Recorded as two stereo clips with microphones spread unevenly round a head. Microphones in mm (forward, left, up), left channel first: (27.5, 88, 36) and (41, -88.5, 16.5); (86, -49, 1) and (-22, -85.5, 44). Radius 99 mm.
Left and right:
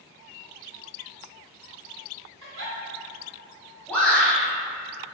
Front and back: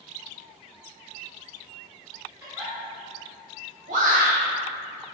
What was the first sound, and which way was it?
A giggle, 110° right.